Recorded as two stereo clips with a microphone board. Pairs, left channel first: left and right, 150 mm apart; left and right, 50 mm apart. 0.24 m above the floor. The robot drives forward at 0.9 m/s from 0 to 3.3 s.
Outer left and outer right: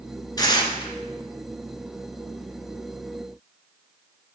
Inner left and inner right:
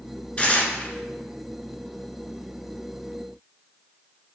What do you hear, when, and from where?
0.4 s tearing paper: 25° left (ahead or behind), 1.4 m; by 0.9 s 40° left (ahead or behind), 1.0 m